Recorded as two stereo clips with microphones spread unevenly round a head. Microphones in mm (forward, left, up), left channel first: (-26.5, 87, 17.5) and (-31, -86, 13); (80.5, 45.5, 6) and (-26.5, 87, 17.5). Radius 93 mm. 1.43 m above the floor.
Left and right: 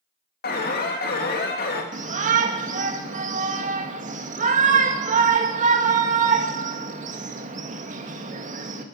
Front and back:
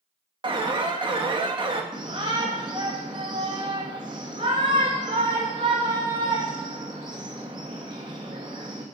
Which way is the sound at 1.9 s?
135° right.